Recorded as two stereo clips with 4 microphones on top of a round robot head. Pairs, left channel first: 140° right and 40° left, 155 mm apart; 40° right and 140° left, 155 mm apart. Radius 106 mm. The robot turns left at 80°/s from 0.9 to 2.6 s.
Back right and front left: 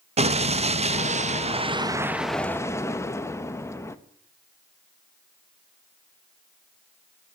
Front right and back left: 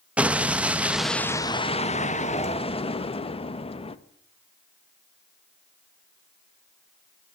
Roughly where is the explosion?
Ahead left.